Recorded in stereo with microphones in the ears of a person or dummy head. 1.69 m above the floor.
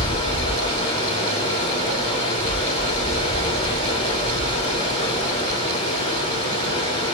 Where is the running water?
30° left (ahead or behind), 1.1 m.